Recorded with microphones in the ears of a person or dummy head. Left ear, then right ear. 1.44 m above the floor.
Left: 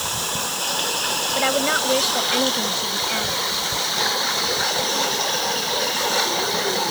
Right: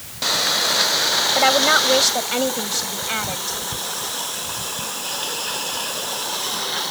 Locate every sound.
1.4 s a woman speaking: 45° right (ahead or behind); by 4.0 s 40° right (ahead or behind)